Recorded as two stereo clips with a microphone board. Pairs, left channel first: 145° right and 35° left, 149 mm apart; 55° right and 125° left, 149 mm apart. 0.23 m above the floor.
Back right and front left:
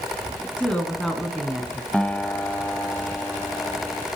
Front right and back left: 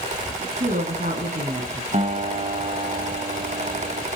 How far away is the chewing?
I don't hear chewing.